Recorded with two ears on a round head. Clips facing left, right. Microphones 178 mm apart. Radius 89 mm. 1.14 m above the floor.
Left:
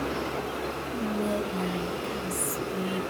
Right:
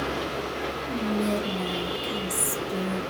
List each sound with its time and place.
0.9 s whispering: 50° right (ahead or behind), 1.7 m